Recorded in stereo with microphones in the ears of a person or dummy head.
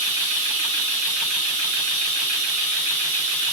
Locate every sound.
0.0 s running water: 60° right (ahead or behind), 5 m